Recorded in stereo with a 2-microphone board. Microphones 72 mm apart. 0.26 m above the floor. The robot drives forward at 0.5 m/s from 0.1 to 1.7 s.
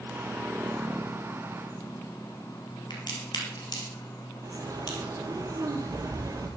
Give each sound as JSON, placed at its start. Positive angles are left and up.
{"t": 2.9, "sound": "a crack", "side_deg": 80, "distance_m": 4.0}
{"t": 4.4, "sound": "a bird", "side_deg": -50, "distance_m": 2.5}